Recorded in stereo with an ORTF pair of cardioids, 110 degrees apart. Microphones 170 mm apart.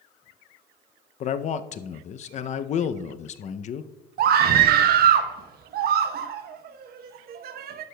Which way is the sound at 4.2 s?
65° right.